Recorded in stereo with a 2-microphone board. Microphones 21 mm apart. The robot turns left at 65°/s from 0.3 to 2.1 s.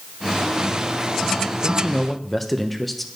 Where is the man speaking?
35° left, 1.0 m; by 3.1 s 5° left, 1.0 m.